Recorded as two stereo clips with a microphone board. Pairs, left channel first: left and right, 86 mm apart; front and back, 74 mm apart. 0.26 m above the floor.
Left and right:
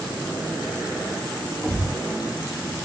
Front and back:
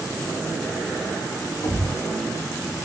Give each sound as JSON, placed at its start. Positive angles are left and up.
{"t": 1.6, "sound": "a thud", "azimuth_deg": -20, "distance_m": 5.0}